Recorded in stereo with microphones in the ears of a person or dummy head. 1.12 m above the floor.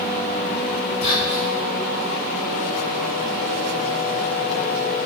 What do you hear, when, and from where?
1.0 s whispering: 45° left (ahead or behind), 1.9 m